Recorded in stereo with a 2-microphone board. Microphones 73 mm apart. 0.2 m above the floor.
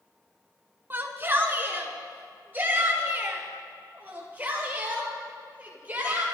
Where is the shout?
30° right (ahead or behind), 1.8 m; by 6.2 s 25° right (ahead or behind), 5.5 m.